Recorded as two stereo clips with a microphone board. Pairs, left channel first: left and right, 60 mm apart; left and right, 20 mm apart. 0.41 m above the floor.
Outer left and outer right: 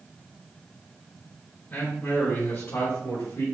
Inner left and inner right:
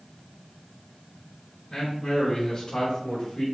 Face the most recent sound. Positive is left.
turn(degrees=55)  # may be behind; listen again after turning